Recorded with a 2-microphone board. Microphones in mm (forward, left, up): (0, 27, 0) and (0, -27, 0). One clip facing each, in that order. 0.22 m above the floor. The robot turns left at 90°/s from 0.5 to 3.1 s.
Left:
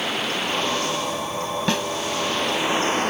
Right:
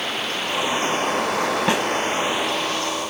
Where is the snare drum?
20° right (ahead or behind); by 1.9 s 10° right (ahead or behind).